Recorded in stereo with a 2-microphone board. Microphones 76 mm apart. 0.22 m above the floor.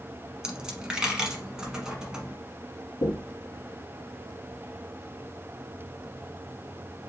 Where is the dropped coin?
10° right (ahead or behind), 1.1 m.